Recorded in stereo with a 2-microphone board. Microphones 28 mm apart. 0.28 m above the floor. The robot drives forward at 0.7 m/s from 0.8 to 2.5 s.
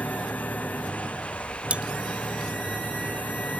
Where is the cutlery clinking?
45° right (ahead or behind).